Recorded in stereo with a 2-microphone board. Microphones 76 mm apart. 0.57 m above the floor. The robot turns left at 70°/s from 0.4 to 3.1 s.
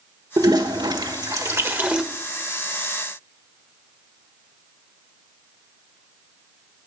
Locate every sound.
0.4 s a toilet flushing: 50° right (ahead or behind), 1.2 m; by 2.0 s 10° right (ahead or behind), 1.2 m